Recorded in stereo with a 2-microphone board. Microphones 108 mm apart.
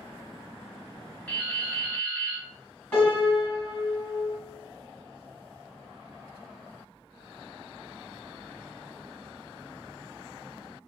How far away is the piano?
About 1.6 m.